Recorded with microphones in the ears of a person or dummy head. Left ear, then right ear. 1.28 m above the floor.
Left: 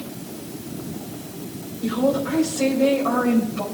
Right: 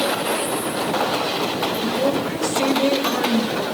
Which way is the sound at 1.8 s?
75° right (ahead or behind).